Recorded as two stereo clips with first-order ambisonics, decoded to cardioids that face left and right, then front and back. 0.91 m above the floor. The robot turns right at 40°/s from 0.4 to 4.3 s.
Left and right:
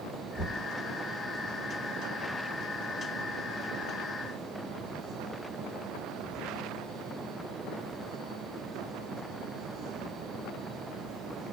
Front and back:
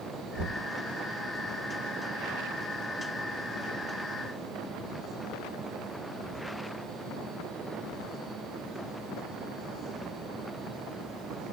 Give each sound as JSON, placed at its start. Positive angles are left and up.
{"t": 0.3, "sound": "knocking", "azimuth_deg": -160, "distance_m": 2.5}